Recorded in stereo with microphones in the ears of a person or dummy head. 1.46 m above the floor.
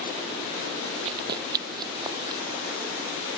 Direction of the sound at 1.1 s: 30° right (ahead or behind).